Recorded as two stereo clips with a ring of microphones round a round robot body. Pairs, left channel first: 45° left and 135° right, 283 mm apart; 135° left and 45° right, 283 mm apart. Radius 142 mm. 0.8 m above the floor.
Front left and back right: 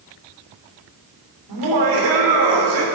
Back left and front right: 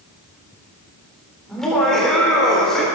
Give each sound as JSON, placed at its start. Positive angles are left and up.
{"t": 1.5, "sound": "laughter", "azimuth_deg": -135, "distance_m": 3.5}